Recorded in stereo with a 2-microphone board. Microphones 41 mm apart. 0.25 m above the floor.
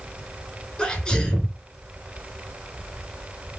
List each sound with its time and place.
0.8 s a sneeze: 20° left (ahead or behind), 3.5 m